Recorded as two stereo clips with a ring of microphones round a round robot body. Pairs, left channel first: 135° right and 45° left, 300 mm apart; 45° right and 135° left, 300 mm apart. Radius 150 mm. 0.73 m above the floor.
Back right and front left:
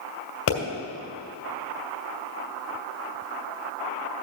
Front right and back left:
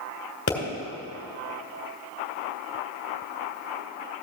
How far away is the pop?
About 2.5 m.